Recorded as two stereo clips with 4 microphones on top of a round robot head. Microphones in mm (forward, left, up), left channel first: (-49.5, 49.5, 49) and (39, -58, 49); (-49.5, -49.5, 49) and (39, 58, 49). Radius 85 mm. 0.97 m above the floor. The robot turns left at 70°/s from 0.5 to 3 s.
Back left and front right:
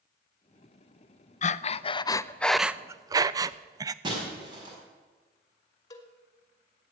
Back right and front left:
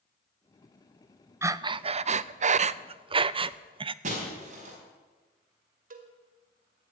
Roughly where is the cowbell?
Ahead left.